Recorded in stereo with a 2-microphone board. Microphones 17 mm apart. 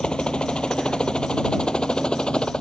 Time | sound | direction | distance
0.0 | a helicopter | 55° left (ahead or behind) | ?